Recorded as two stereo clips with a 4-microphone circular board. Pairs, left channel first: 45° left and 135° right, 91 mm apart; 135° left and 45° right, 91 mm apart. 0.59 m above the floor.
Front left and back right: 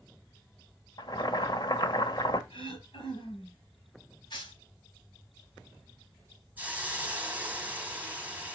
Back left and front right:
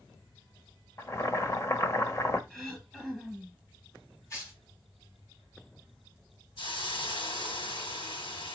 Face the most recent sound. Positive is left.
turn(degrees=155)